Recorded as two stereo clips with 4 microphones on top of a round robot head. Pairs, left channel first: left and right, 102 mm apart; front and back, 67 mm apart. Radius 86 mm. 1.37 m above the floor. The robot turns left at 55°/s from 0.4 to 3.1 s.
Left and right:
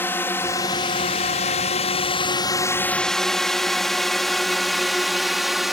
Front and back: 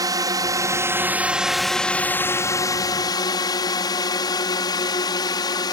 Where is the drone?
160° left; by 5.7 s straight ahead.